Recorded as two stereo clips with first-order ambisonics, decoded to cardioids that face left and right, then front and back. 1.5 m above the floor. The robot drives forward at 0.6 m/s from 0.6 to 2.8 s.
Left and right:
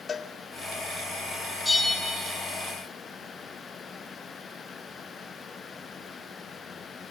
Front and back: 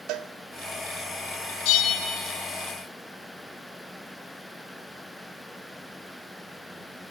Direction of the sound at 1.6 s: 10° left.